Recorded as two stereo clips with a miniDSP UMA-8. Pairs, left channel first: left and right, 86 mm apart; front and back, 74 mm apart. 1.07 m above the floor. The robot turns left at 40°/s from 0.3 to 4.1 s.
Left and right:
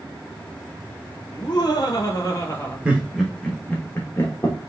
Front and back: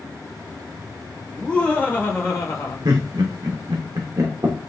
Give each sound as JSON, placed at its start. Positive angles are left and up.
{"t": 1.3, "sound": "laughter", "azimuth_deg": 80, "distance_m": 1.4}
{"t": 2.9, "sound": "laughter", "azimuth_deg": -160, "distance_m": 0.9}